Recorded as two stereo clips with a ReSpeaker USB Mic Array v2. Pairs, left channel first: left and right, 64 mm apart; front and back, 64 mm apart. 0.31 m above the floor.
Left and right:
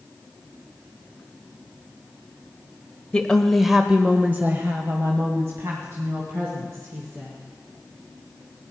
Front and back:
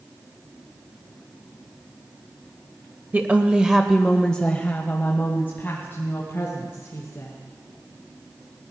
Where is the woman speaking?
145° left, 1.1 m; by 7.3 s 50° right, 3.5 m.